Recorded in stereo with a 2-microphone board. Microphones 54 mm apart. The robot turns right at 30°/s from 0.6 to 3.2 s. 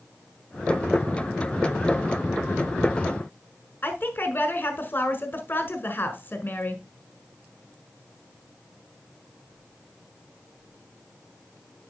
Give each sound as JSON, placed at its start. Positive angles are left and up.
{"t": 3.8, "sound": "a woman speaking", "side_deg": 40, "distance_m": 1.7}